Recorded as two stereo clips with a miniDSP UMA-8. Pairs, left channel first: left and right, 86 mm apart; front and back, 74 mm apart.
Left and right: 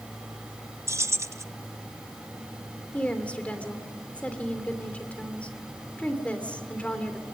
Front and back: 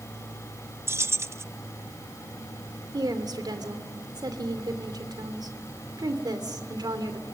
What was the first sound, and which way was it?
Keys jangling, 135° right.